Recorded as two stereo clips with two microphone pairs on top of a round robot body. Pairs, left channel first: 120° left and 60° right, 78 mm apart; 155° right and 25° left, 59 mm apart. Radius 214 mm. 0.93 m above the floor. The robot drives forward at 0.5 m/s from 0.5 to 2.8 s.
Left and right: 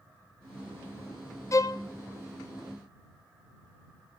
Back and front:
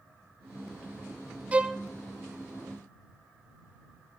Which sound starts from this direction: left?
A violin, at 1.5 s.